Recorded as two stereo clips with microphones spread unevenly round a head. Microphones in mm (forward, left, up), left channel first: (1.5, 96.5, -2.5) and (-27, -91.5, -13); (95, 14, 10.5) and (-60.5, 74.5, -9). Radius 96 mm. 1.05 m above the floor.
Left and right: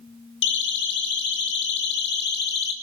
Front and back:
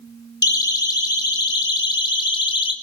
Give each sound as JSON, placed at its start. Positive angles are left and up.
{"t": 0.4, "sound": "a siren", "azimuth_deg": 45, "distance_m": 4.5}